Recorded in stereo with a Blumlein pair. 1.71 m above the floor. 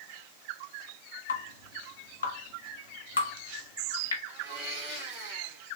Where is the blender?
40° right, 2.5 m.